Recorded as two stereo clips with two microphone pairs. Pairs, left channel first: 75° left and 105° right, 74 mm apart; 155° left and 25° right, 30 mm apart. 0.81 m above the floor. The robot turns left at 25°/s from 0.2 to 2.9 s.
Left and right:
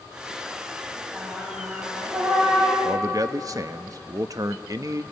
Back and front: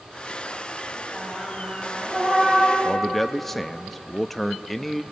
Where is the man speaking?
120° right, 0.7 m.